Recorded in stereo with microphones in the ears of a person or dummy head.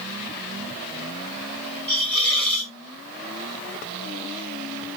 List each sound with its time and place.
1.9 s a hiss: centre (ahead or behind), 1.6 m